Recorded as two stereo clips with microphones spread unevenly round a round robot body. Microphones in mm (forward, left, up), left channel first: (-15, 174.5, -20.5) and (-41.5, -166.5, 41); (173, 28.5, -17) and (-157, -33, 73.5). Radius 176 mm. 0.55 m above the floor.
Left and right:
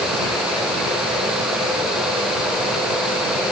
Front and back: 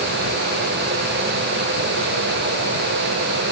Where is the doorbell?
No doorbell in this recording.